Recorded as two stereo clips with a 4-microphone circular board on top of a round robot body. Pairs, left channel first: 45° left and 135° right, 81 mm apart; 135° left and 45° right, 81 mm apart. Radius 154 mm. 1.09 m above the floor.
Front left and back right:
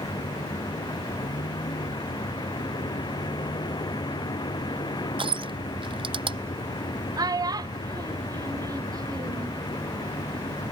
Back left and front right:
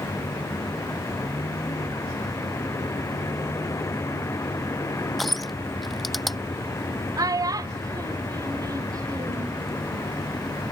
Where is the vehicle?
80° left.